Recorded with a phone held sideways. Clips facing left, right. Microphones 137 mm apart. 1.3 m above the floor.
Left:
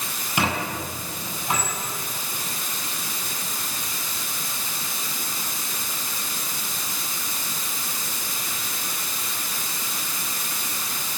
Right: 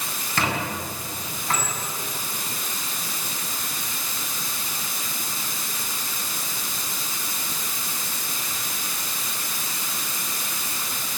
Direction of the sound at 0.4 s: 15° left (ahead or behind).